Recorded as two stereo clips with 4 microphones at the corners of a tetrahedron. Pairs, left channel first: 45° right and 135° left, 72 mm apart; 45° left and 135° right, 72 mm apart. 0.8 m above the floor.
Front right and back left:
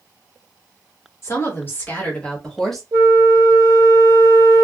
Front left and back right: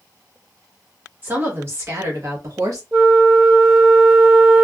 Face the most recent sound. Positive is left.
turn(degrees=150)